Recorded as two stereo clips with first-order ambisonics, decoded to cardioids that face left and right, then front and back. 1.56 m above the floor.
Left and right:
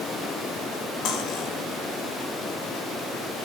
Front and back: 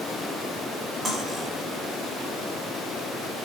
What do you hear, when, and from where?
1.1 s cutlery clinking: 115° left, 1.3 m